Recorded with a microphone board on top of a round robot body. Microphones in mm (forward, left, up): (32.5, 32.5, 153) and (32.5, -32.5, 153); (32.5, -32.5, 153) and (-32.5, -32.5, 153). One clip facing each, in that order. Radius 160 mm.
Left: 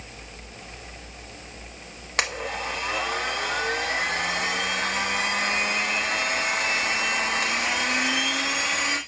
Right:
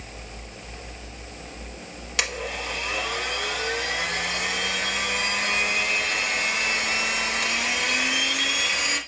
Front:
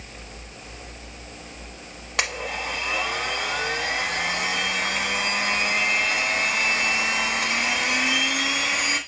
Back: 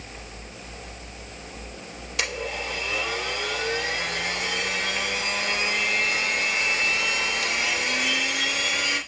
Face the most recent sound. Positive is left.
turn(degrees=40)